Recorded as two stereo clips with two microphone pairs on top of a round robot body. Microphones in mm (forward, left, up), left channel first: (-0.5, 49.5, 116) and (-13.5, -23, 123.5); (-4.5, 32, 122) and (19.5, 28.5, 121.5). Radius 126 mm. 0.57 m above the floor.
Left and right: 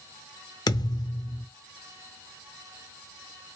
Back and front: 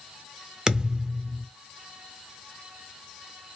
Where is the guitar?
I don't hear a guitar.